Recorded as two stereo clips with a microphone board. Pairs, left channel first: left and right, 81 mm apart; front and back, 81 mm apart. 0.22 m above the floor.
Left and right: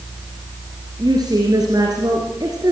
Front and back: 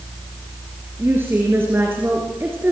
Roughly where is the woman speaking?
Behind right.